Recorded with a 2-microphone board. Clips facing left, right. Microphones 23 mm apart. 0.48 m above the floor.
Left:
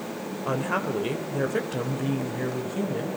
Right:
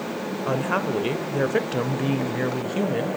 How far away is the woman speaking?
About 1.8 m.